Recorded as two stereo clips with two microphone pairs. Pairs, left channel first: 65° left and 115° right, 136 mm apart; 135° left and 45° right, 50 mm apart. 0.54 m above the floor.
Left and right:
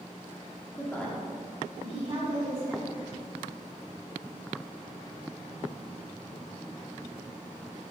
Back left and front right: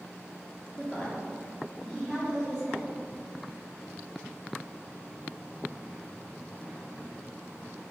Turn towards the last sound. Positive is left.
turn(degrees=-145)